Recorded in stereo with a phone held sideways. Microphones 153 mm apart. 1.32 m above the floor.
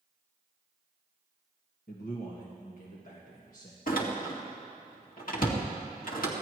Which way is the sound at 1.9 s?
65° left (ahead or behind).